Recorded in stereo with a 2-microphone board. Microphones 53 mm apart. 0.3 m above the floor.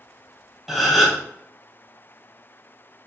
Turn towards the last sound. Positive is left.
turn(degrees=0)  # may be behind; listen again after turning